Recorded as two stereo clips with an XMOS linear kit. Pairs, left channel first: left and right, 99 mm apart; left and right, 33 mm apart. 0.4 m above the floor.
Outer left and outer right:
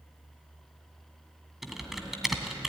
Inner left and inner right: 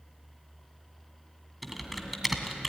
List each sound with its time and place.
1.6 s typing on a keyboard: 5° right (ahead or behind), 2 m